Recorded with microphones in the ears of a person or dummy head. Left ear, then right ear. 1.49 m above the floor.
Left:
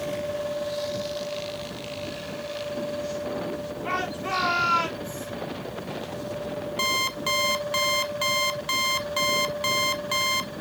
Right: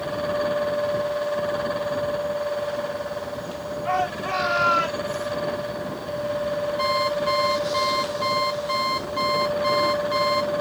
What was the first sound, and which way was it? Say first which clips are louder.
A shout: right 5 dB; 10° left (ahead or behind).